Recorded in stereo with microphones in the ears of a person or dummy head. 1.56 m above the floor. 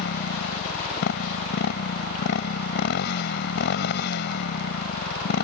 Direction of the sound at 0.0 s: 65° left (ahead or behind).